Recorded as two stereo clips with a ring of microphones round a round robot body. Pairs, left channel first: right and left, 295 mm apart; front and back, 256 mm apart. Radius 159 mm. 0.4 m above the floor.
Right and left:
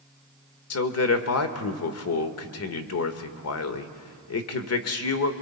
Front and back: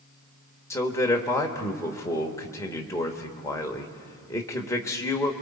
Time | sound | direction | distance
0.7 | a man speaking | 75° right | 1.2 m